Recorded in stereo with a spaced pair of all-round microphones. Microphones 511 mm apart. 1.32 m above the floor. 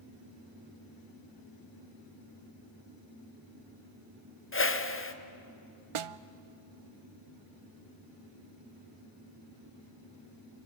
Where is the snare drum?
70° right (ahead or behind), 0.5 m.